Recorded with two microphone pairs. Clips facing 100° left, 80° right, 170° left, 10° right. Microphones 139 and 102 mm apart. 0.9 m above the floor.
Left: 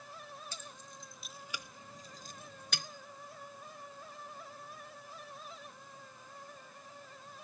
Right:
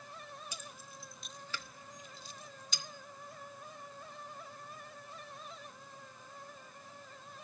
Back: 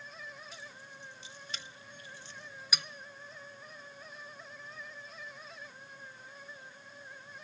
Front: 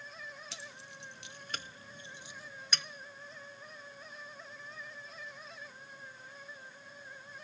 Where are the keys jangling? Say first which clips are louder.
Even, even; straight ahead, 1.0 m; by 2.9 s 90° left, 0.7 m.